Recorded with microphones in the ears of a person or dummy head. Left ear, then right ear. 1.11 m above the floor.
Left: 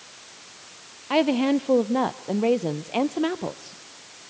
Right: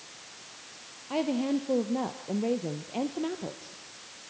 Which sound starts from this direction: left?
A woman speaking, at 1.1 s.